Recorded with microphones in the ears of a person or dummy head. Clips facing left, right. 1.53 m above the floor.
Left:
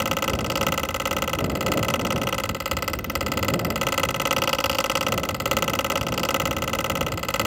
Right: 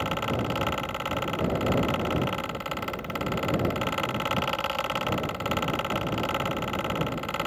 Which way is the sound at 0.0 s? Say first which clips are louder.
Left 3 dB; 55° left (ahead or behind).